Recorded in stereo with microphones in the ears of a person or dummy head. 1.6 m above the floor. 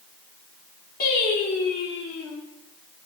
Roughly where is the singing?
Left.